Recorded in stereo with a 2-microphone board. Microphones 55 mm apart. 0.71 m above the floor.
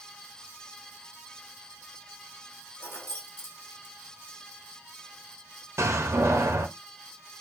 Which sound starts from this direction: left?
Keys jangling, at 2.8 s.